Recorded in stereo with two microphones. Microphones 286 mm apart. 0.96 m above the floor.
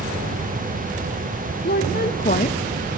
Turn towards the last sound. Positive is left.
turn(degrees=5)  # may be behind; listen again after turning